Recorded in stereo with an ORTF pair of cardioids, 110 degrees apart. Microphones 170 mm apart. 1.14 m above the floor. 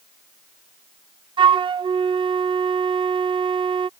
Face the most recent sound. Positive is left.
turn(degrees=-25)